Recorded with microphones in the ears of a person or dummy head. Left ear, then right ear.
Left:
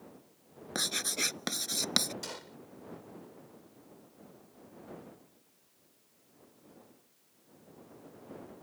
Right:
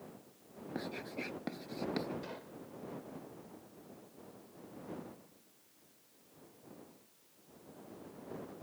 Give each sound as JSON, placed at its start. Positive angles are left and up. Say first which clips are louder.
{"t": 0.8, "sound": "writing", "louder": "left 11 dB", "side_deg": 70}
{"t": 2.2, "sound": "a gunshot", "louder": "left 4 dB", "side_deg": 85}